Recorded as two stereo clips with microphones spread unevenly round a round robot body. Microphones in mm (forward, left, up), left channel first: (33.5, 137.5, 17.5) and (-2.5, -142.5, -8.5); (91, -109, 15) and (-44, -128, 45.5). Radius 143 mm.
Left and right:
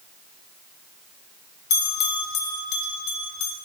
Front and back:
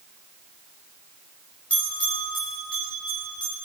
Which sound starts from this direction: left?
A bell, at 1.7 s.